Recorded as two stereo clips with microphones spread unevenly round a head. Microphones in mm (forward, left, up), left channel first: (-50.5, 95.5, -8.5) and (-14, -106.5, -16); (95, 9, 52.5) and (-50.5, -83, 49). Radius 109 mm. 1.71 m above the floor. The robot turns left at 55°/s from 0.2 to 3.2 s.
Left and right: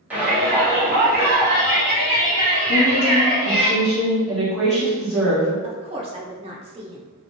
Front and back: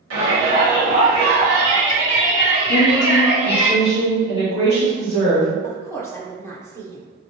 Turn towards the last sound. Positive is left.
turn(degrees=-30)